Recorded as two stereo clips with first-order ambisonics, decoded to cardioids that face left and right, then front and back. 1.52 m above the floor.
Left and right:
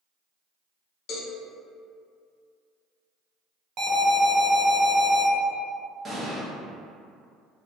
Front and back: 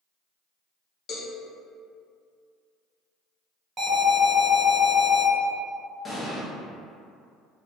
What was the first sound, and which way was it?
A cowbell, 55° left.